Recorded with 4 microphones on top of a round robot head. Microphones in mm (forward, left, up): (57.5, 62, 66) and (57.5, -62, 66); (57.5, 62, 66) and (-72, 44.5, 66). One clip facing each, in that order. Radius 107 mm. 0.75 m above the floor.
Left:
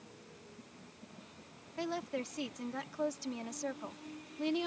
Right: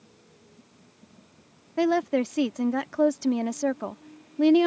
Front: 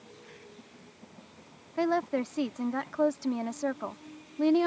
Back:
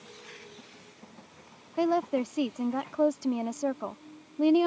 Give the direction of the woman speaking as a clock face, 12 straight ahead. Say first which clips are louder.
Right 15 dB, back 2 dB; 3 o'clock.